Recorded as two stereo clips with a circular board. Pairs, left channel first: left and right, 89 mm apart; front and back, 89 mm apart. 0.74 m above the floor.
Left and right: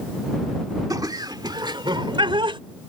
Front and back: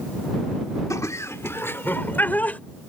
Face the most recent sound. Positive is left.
turn(degrees=-70)